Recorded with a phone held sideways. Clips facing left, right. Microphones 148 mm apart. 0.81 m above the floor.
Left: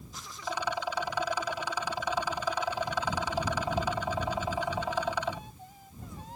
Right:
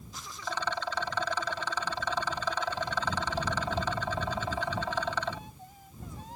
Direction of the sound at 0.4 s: 10° left (ahead or behind).